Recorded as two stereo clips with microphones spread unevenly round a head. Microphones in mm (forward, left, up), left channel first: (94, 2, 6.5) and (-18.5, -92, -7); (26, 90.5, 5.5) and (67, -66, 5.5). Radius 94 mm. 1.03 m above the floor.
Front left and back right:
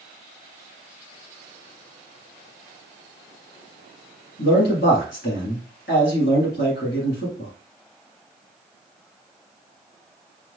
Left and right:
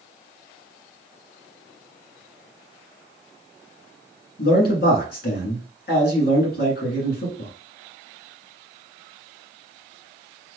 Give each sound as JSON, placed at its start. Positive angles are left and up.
{"t": 4.4, "sound": "a man speaking", "azimuth_deg": 80, "distance_m": 1.9}